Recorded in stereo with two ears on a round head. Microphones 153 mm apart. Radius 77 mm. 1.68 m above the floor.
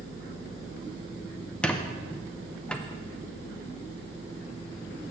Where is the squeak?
5° left (ahead or behind), 0.5 m.